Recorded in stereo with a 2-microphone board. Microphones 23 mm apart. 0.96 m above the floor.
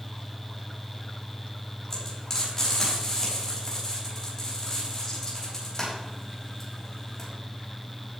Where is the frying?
25° left (ahead or behind), 5.5 m.